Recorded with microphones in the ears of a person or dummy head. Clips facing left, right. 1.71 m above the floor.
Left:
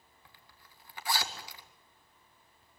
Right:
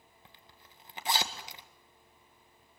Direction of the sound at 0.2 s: 20° right (ahead or behind).